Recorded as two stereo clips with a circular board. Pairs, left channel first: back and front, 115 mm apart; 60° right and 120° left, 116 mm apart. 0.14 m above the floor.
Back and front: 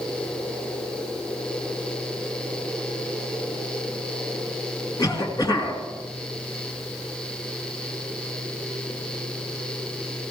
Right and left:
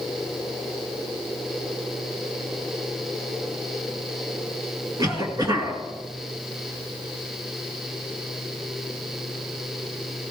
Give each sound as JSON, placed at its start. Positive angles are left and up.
{"t": 5.0, "sound": "a cough", "azimuth_deg": 150, "distance_m": 2.0}